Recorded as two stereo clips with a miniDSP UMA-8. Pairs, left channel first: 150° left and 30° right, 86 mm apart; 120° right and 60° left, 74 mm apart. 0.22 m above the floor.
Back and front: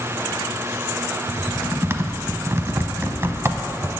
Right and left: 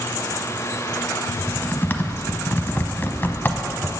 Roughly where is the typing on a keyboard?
Right.